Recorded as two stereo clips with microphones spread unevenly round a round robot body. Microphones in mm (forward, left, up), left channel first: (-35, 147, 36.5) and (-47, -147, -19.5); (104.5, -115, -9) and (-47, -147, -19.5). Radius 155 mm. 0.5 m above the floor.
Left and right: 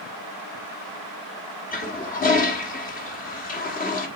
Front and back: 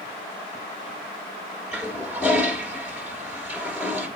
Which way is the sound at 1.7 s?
130° left.